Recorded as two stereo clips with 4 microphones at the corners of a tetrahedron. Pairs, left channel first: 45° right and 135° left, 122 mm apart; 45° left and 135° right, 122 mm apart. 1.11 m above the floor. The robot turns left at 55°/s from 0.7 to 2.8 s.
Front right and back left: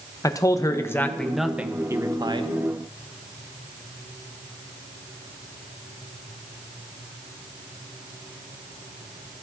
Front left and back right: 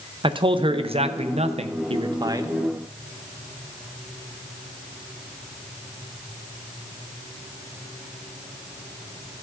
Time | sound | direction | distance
0.2 | a man speaking | 100° right | 0.5 m